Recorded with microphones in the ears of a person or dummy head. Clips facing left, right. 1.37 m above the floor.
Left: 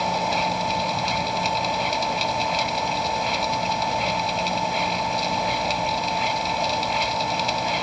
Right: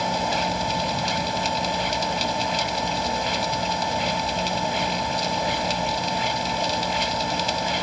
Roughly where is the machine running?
Centre.